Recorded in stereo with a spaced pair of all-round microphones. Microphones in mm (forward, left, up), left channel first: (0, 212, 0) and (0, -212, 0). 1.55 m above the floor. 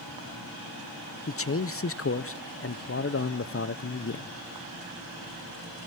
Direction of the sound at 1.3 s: 35° left (ahead or behind).